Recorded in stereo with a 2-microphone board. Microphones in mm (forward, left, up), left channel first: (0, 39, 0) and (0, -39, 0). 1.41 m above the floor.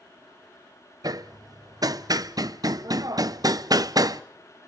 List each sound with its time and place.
1.0 s hammering: 50° right (ahead or behind), 0.6 m